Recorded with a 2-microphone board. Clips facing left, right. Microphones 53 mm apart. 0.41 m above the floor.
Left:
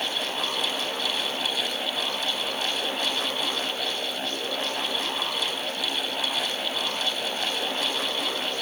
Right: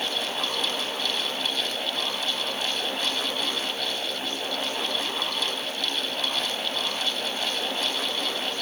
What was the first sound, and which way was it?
Only background noise.